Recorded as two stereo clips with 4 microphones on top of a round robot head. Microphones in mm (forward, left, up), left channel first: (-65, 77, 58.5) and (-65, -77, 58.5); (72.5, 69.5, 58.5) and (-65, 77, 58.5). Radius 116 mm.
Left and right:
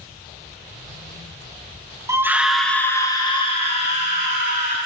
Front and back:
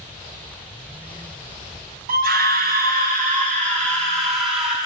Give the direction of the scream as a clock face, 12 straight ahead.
5 o'clock.